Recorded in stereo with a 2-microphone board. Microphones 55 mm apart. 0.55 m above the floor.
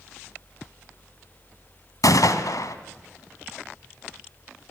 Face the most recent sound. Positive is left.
turn(degrees=80)